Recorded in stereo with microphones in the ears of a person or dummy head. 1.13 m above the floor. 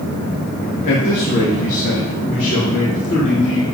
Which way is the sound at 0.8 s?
40° left (ahead or behind).